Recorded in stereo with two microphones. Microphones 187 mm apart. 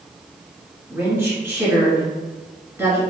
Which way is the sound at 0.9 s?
15° right (ahead or behind).